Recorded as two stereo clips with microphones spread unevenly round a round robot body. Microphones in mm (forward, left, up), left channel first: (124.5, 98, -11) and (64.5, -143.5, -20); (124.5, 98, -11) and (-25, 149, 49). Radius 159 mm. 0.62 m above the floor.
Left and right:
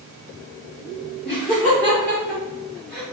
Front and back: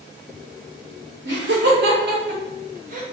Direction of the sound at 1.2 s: 160° left.